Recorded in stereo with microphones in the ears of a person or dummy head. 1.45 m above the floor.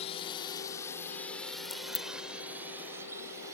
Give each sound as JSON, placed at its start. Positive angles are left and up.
{"t": 0.0, "sound": "a drone", "side_deg": 35}
{"t": 1.6, "sound": "a crack", "side_deg": 10}